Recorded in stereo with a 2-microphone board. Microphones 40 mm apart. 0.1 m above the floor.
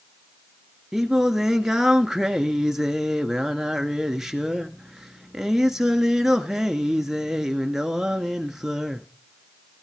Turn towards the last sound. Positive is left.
turn(degrees=-10)  # may be behind; listen again after turning